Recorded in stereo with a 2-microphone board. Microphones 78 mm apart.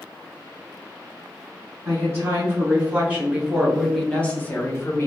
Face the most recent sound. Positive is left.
turn(degrees=40)  # may be behind; listen again after turning